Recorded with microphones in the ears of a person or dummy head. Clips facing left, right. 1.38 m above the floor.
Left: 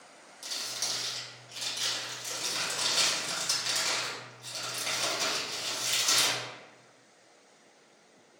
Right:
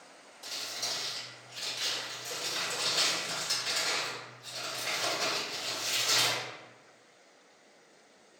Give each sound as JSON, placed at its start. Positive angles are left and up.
{"t": 0.4, "sound": "crumpling", "side_deg": 75, "distance_m": 1.5}